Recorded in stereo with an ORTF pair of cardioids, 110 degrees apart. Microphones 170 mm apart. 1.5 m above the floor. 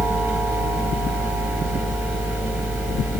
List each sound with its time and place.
0.0 s a fan: 15° right, 9 m